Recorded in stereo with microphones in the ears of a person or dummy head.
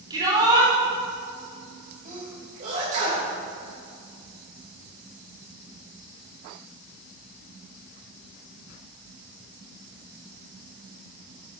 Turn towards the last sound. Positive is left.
turn(degrees=-45)  # may be behind; listen again after turning